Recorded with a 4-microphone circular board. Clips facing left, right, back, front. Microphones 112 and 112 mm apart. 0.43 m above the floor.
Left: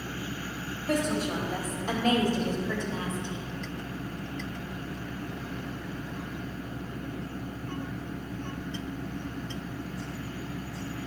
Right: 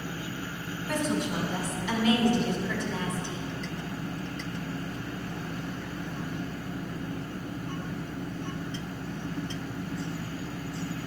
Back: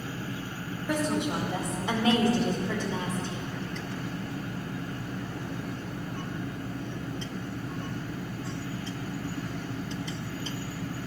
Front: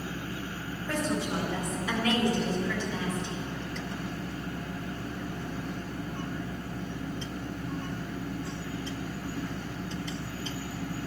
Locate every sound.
0.9 s a woman speaking: 110° left, 2.0 m; by 3.5 s 160° left, 1.4 m